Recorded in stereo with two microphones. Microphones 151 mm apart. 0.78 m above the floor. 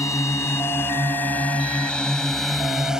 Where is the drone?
20° left (ahead or behind); by 3.0 s 5° right (ahead or behind).